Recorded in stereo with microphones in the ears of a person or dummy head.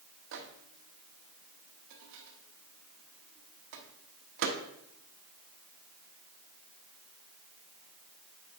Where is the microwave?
60° right (ahead or behind), 0.9 m.